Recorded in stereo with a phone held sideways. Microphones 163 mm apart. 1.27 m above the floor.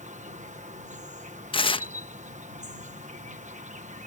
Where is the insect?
45° right (ahead or behind).